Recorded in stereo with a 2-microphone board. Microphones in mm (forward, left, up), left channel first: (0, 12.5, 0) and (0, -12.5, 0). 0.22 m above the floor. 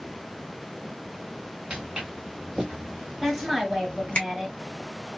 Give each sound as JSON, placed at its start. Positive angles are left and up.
{"t": 1.7, "sound": "footsteps", "side_deg": -35, "distance_m": 1.6}
{"t": 3.2, "sound": "a woman speaking", "side_deg": -20, "distance_m": 1.3}